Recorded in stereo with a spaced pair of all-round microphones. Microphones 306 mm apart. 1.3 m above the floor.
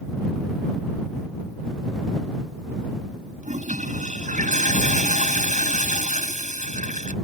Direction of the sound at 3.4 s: 25° right (ahead or behind).